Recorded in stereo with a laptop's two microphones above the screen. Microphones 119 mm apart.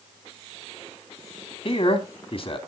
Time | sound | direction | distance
1.6 | a man speaking | 55° left (ahead or behind) | 2 m